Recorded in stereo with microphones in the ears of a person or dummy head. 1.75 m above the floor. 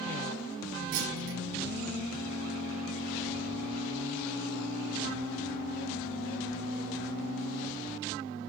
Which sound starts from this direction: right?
A clunk, at 0.9 s.